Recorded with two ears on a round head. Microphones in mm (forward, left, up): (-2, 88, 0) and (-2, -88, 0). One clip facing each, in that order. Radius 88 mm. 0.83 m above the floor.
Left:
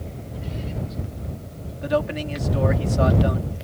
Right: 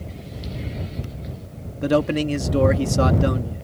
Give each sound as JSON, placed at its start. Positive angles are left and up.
{"t": 1.8, "sound": "a man speaking", "side_deg": -60}